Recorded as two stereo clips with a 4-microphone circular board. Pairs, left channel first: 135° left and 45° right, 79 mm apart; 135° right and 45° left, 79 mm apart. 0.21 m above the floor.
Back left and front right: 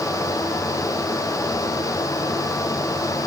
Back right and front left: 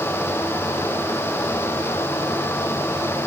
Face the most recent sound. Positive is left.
No sound to turn to.